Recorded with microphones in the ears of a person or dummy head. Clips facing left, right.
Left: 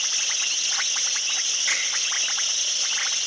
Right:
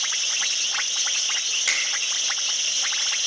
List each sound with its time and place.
1.7 s a finger snap: 35° right (ahead or behind), 3 m